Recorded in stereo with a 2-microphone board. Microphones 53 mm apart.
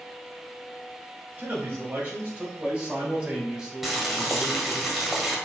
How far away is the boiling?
About 1.7 m.